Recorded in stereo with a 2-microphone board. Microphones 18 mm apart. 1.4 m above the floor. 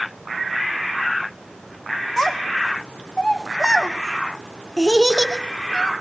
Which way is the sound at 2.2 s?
25° left (ahead or behind).